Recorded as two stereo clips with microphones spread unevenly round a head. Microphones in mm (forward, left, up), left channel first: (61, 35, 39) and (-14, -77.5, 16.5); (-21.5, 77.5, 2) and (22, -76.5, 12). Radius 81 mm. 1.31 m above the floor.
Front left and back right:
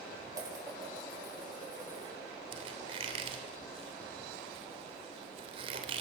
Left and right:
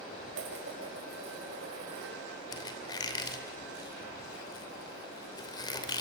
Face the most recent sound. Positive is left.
turn(degrees=175)